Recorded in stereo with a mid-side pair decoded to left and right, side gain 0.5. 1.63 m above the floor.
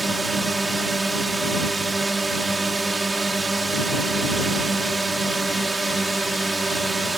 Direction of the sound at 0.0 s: 20° right.